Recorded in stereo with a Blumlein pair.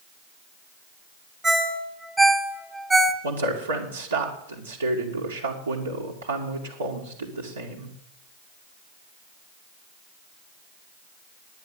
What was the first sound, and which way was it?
A ringtone, 15° right.